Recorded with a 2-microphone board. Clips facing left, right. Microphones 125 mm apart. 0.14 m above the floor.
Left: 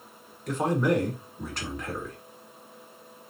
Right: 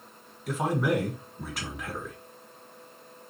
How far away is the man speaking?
About 1.3 m.